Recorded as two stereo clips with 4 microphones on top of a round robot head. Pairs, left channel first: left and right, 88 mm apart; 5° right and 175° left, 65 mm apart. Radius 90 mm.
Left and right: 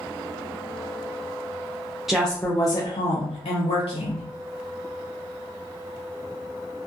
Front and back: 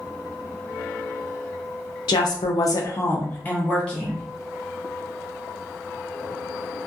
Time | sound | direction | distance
2.1 | a woman speaking | 5° right | 0.6 m